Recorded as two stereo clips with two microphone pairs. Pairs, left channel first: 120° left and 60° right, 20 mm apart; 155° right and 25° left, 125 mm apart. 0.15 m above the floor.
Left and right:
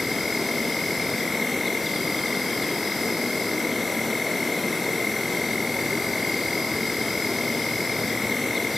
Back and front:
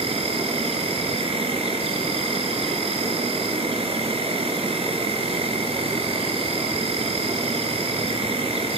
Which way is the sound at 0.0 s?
35° left.